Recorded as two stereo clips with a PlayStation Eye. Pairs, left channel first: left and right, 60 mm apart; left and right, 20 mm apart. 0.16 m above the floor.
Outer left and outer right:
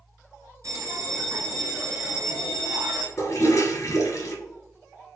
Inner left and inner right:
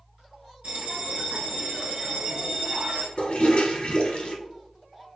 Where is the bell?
55° right (ahead or behind), 1.3 m.